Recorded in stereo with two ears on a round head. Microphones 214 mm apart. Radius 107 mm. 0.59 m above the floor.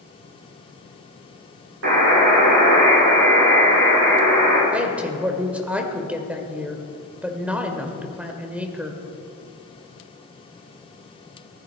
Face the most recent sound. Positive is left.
turn(degrees=-5)  # may be behind; listen again after turning